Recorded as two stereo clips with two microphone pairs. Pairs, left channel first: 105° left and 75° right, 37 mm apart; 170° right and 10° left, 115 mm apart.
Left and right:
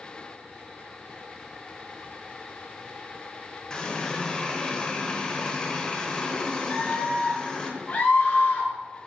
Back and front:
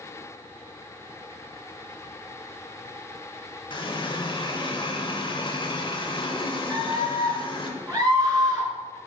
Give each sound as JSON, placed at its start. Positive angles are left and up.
{"t": 3.7, "sound": "a running tap", "azimuth_deg": 170, "distance_m": 0.9}
{"t": 6.7, "sound": "a scream", "azimuth_deg": 60, "distance_m": 1.6}